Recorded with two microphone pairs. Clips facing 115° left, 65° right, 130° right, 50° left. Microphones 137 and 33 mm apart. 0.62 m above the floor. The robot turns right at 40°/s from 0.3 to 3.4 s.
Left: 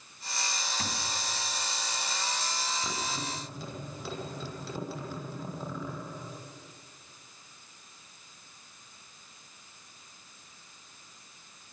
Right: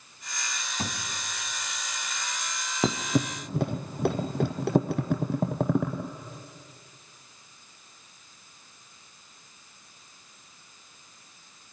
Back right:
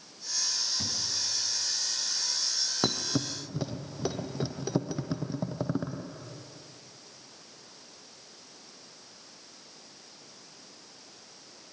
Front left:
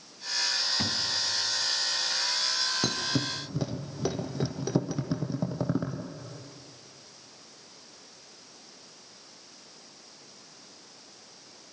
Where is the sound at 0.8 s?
5° right, 2.5 m; by 1.0 s 5° left, 2.5 m.